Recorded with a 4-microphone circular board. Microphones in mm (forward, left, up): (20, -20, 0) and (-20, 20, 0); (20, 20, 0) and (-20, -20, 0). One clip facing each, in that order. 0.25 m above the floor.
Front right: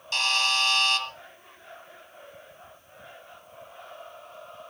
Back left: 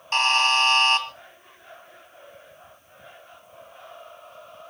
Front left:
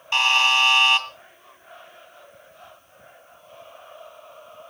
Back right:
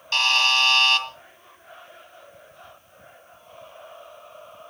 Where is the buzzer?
110° left, 2 m.